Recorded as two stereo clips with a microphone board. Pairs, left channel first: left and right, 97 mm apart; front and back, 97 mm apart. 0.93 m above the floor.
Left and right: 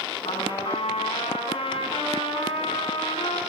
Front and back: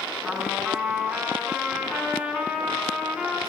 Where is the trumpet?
95° left, 6.5 m.